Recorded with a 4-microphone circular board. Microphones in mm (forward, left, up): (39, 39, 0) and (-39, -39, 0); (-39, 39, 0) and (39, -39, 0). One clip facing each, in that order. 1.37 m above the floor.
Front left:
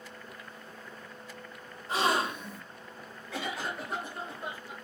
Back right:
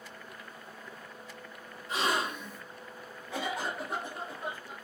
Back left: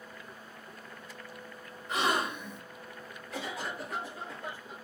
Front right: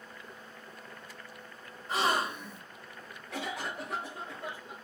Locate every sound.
1.9 s a gasp: straight ahead, 1.4 m
3.3 s a cough: 60° right, 1.7 m